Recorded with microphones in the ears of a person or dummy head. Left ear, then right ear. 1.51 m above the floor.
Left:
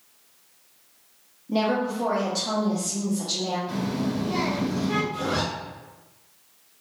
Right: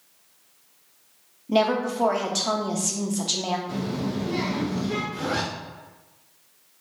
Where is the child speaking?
65° left (ahead or behind), 1.5 m.